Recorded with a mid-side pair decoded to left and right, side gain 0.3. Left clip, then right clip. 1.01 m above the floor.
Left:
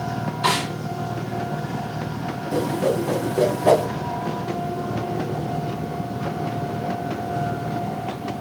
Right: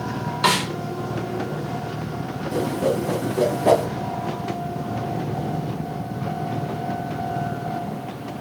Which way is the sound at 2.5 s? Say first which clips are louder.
Left 1 dB; 5° right.